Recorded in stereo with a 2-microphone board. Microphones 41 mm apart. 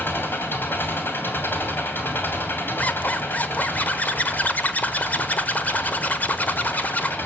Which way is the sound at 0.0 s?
70° left (ahead or behind).